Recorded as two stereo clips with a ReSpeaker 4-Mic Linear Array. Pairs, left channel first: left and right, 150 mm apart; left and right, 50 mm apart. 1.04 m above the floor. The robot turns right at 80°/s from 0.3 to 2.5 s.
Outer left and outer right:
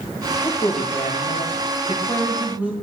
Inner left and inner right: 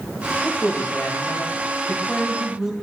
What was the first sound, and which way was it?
A man speaking, 25° left.